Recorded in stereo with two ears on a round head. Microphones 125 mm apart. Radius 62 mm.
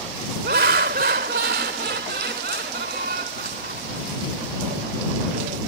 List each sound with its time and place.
0.4 s laughter: 75° right (ahead or behind)